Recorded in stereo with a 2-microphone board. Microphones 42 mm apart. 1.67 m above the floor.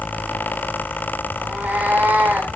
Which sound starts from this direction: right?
A cat meowing, at 1.4 s.